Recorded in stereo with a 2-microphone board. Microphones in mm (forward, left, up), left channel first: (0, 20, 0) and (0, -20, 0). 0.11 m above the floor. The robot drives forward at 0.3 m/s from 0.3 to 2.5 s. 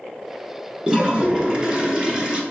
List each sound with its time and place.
0.9 s a toilet flushing: 20° right (ahead or behind), 0.8 m